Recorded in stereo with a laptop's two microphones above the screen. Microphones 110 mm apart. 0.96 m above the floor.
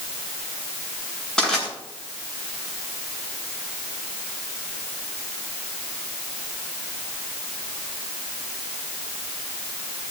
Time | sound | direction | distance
1.4 | crushing | 5° left (ahead or behind) | 7.5 m